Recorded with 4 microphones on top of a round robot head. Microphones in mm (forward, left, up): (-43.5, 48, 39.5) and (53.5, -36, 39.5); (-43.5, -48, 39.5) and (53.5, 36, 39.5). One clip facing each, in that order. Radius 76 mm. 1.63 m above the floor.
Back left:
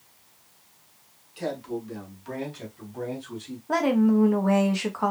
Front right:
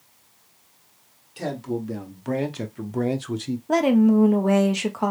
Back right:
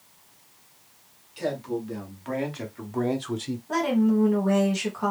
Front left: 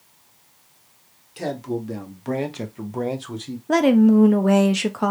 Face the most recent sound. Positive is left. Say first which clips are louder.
# front right 4 dB, front left 8 dB
turn(degrees=25)